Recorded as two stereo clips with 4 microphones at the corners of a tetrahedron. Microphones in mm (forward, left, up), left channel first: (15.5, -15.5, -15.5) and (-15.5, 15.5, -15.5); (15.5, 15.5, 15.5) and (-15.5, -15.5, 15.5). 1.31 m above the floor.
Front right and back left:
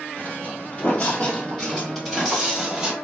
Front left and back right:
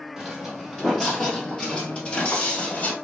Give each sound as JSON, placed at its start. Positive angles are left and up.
{"t": 0.2, "sound": "footsteps", "azimuth_deg": -60, "distance_m": 1.6}